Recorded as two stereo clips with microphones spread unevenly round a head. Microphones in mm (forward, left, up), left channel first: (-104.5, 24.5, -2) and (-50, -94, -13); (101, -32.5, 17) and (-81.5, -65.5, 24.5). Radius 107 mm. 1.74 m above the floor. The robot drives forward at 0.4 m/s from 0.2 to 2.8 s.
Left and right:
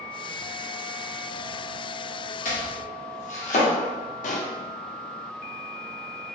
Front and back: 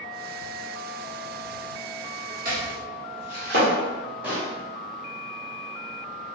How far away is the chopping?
About 1.4 m.